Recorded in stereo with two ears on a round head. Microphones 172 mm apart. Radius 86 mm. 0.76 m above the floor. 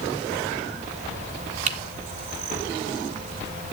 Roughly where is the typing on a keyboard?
Right.